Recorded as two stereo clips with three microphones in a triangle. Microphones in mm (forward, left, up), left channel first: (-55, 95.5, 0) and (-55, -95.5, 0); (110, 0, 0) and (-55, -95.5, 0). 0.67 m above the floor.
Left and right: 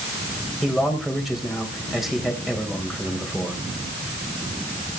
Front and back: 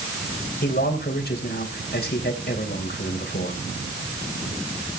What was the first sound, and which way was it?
A man speaking, straight ahead.